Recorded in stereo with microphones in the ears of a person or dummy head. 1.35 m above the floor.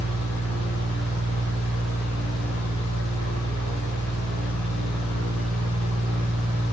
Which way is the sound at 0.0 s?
45° right (ahead or behind).